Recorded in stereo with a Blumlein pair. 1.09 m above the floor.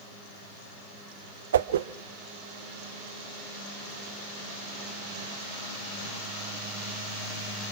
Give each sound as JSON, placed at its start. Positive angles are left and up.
{"t": 1.5, "sound": "a whoosh", "azimuth_deg": -60, "distance_m": 0.6}